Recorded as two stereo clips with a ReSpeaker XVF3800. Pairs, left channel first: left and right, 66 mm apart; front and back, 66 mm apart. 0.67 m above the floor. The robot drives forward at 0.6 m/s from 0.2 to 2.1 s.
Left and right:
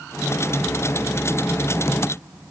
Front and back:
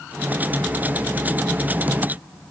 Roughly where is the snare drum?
I don't hear a snare drum.